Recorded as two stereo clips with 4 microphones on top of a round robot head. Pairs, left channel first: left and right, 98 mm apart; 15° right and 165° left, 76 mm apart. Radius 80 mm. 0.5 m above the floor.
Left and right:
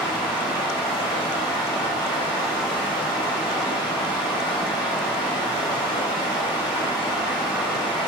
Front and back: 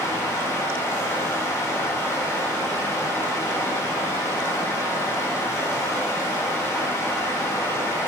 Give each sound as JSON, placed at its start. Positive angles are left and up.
{"t": 0.0, "sound": "running water", "azimuth_deg": 40, "distance_m": 1.0}